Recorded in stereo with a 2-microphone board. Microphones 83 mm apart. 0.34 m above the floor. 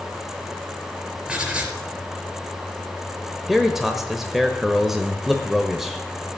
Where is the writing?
15° right (ahead or behind), 4 m.